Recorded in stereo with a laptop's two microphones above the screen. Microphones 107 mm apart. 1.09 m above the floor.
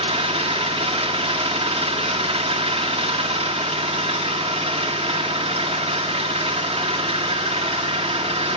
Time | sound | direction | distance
0.0 | an engine running | 70° right (ahead or behind) | 1.4 m